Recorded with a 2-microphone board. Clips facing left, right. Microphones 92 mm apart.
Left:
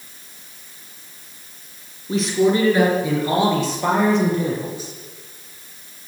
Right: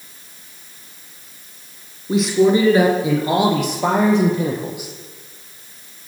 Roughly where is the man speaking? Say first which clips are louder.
Right 3 dB; centre.